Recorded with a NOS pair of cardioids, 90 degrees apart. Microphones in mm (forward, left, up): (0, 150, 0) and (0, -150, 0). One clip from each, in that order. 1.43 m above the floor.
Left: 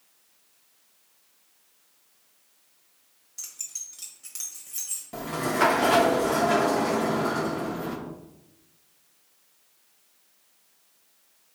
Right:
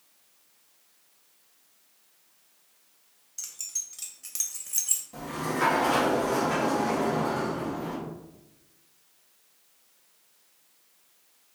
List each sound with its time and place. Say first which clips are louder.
3.4 s keys jangling: right 2 dB; 5° left, 1.2 m; by 5.0 s 45° right, 1.1 m
5.1 s a sliding door: left 8 dB; 50° left, 1.0 m